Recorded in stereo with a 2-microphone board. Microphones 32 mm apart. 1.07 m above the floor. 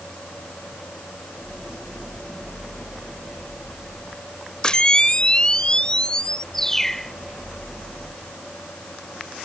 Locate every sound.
4.6 s a camera shutter: 30° left (ahead or behind)
6.5 s a bird: 10° left (ahead or behind)